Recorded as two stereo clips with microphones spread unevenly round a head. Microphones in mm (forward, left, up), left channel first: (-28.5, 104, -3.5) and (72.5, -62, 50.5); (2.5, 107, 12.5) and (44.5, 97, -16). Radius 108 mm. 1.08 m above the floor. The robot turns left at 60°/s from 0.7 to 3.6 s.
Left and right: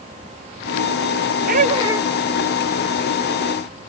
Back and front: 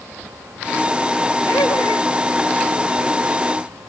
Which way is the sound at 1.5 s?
110° right.